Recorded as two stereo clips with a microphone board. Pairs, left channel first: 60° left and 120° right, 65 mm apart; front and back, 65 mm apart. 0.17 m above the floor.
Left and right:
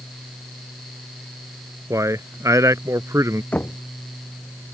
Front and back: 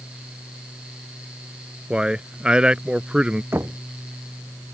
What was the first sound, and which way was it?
A man speaking, 110° right.